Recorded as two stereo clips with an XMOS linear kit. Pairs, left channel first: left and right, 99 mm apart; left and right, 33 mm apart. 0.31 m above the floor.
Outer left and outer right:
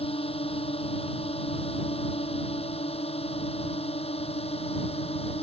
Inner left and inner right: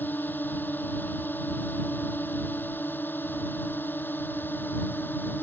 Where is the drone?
75° left (ahead or behind); by 5.4 s 85° left.